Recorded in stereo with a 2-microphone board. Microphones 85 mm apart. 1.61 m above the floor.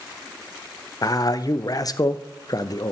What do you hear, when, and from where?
1.0 s a man speaking: 45° left (ahead or behind), 0.6 m